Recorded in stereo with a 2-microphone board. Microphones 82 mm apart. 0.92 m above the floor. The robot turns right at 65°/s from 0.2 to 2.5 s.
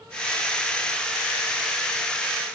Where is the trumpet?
No trumpet in this recording.